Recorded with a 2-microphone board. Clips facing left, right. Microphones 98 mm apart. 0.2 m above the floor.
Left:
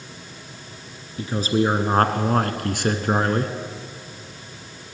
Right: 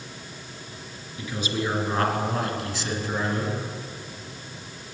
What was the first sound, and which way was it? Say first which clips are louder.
A man speaking: left 8 dB; 35° left (ahead or behind).